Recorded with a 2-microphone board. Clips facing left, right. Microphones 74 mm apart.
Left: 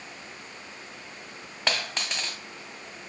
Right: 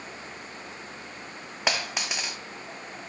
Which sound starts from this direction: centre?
A dropped coin, at 1.7 s.